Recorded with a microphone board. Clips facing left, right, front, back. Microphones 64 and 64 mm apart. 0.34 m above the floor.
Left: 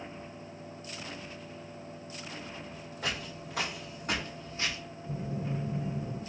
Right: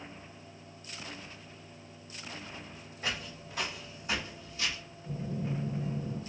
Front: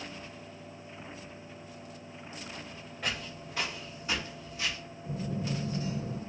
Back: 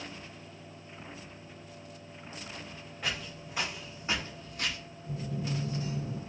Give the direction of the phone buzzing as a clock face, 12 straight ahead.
12 o'clock.